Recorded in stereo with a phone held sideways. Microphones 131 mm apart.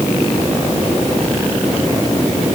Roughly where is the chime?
No chime in this recording.